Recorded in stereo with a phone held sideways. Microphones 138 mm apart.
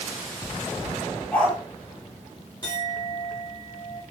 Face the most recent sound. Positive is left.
turn(degrees=25)  # may be behind; listen again after turning